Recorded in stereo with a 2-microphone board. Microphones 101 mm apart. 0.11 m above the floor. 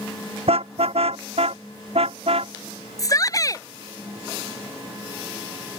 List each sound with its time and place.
0.5 s a car horn: 75° right (ahead or behind)
3.0 s a shout: 35° left (ahead or behind)